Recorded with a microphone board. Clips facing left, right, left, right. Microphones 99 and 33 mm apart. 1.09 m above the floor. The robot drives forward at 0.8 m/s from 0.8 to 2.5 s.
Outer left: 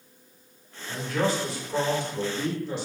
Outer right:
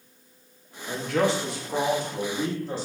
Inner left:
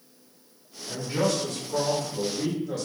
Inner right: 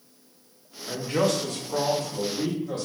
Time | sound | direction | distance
0.9 | a man speaking | 75° right (ahead or behind) | 1.1 m